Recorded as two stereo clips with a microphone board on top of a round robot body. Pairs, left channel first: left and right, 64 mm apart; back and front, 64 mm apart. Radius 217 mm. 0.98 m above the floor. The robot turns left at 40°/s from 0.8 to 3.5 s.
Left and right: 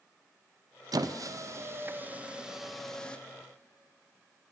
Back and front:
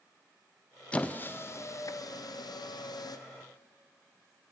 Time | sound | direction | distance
0.9 | a squeak | 105° right | 0.5 m